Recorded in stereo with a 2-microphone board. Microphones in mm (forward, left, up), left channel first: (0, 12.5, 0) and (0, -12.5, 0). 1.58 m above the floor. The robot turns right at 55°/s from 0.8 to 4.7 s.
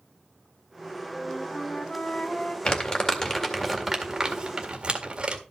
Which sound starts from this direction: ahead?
A flute, at 1.1 s.